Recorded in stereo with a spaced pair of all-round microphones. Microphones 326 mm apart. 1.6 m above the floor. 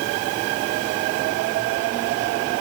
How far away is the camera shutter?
No camera shutter in this recording.